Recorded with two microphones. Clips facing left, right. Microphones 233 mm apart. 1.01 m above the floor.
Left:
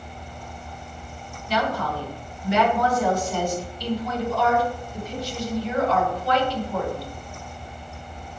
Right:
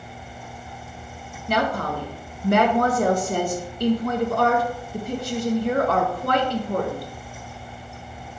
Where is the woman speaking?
55° right (ahead or behind), 0.8 m.